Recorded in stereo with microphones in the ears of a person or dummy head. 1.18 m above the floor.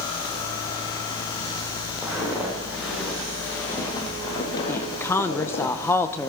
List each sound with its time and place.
2.0 s footsteps: 5° right (ahead or behind), 5 m; by 5.7 s 60° left (ahead or behind), 3 m
4.7 s a woman speaking: 10° left (ahead or behind), 0.8 m